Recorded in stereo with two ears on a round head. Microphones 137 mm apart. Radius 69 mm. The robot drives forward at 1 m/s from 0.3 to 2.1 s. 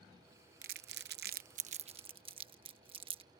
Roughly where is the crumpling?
Right.